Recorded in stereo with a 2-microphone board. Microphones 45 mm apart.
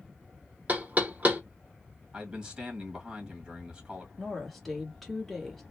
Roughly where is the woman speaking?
Centre.